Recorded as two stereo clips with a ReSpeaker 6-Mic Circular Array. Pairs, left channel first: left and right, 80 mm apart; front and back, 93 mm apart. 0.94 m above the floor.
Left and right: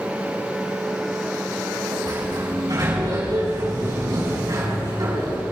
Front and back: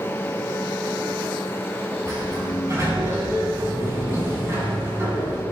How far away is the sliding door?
About 7 m.